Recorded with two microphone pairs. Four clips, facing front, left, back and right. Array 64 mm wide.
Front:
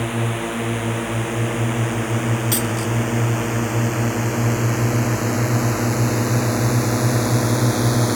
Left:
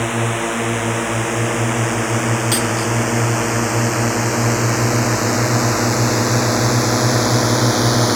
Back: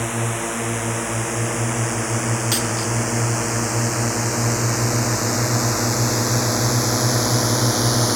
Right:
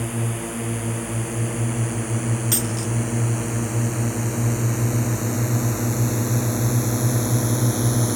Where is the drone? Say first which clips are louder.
Left 8 dB, front 1 dB; 105° left.